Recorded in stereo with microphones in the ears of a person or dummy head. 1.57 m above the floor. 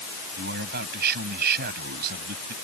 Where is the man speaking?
55° right (ahead or behind).